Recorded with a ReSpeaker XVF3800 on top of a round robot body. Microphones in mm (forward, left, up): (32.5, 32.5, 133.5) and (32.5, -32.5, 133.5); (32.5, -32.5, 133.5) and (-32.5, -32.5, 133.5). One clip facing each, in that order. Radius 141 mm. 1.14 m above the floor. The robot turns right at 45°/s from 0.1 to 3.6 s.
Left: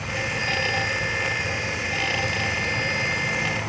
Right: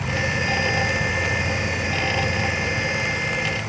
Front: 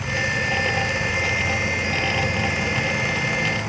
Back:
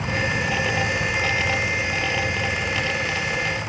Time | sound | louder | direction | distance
0.0 | an insect | right 3 dB, even | 130° right | 1.5 m